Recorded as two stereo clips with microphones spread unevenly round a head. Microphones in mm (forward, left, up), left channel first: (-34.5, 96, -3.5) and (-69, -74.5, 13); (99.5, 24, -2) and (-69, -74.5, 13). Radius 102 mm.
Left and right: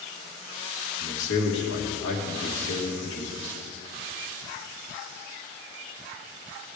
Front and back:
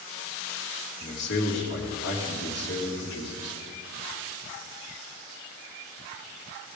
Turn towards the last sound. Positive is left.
turn(degrees=65)